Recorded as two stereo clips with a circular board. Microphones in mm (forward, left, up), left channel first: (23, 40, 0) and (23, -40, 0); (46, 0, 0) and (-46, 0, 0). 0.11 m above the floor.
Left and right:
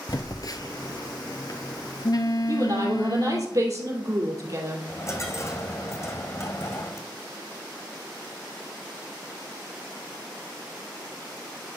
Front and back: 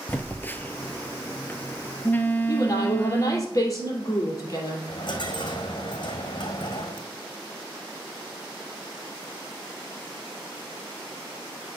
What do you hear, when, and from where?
0.1 s a phone buzzing: 65° left, 0.7 m
2.5 s a woman speaking: 50° right, 2.5 m
4.9 s a dropped coin: 35° left, 1.7 m